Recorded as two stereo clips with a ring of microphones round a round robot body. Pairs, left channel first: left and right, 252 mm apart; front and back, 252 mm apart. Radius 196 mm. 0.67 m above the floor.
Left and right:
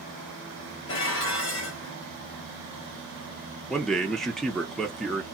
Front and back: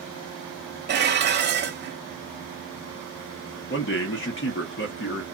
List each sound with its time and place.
0.9 s dishes clattering: 130° left, 1.0 m
3.7 s a man speaking: straight ahead, 1.1 m